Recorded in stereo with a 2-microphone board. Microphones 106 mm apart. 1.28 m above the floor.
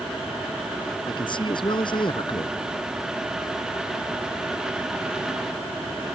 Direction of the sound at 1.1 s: 50° left (ahead or behind).